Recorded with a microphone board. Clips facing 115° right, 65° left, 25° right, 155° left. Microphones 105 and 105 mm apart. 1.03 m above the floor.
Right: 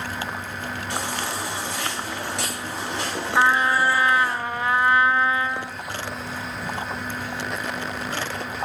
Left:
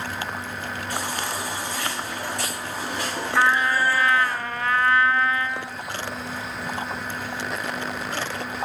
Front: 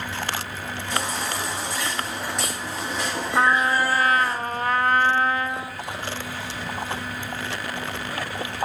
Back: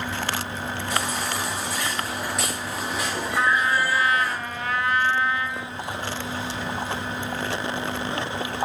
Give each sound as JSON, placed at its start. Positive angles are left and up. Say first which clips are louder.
{"t": 0.9, "sound": "a baby crying", "louder": "even, front 1 dB", "azimuth_deg": -115, "distance_m": 7.5}
{"t": 3.4, "sound": "a trumpet", "louder": "right 1 dB, front 2 dB", "azimuth_deg": -45, "distance_m": 0.6}